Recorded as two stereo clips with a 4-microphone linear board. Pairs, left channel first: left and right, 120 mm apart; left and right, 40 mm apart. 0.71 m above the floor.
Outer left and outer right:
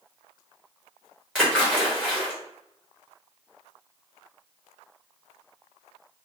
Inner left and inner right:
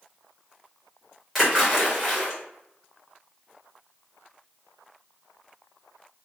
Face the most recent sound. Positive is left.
turn(degrees=5)  # may be behind; listen again after turning